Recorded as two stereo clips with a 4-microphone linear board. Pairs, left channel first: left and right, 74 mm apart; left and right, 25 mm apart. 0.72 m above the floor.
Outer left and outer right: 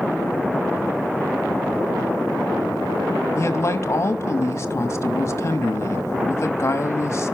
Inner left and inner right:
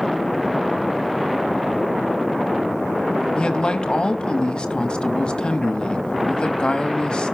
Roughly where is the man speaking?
Left.